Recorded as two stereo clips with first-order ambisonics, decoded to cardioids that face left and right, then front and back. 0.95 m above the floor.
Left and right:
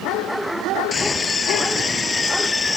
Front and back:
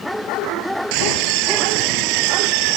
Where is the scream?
165° left; by 2.8 s 170° left.